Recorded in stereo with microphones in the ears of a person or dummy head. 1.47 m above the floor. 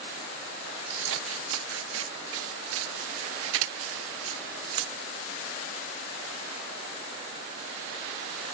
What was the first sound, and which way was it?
Scissors, 80° right.